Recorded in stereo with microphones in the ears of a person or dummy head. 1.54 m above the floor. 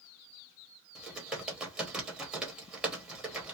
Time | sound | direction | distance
0.9 | typing on a keyboard | centre (ahead or behind) | 0.9 m